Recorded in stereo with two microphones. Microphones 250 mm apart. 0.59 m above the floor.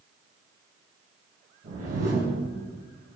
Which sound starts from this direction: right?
A whoosh, at 1.6 s.